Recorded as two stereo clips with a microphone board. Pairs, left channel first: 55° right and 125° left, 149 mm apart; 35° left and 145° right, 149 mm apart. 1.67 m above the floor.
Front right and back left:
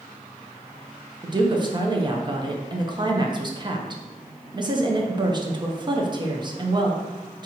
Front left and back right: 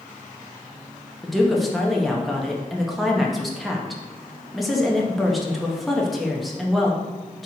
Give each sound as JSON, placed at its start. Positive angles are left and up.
{"t": 1.2, "sound": "a woman speaking", "azimuth_deg": 125, "distance_m": 0.6}